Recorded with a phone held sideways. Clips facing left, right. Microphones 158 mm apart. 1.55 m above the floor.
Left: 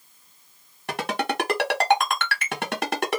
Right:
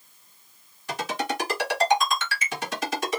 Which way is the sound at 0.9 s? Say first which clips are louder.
Left 2 dB; 65° left (ahead or behind).